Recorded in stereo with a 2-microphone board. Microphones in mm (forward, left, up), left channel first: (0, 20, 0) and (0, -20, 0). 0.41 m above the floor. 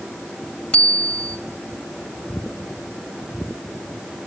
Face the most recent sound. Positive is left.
turn(degrees=25)  # may be behind; listen again after turning